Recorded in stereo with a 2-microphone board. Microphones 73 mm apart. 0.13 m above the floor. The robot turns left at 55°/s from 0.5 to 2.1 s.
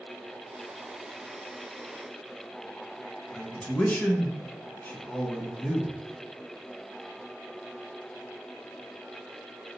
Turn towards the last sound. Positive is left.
turn(degrees=20)  # may be behind; listen again after turning